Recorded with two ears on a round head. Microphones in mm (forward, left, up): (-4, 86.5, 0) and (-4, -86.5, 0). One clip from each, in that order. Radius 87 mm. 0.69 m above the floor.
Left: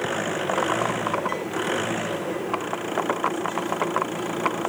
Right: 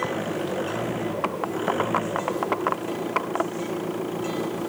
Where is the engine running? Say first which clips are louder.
Left 2 dB; 45° left (ahead or behind).